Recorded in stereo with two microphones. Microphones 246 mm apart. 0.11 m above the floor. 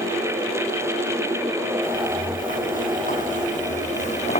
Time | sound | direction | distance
1.8 | footsteps | 35° left (ahead or behind) | 4.5 m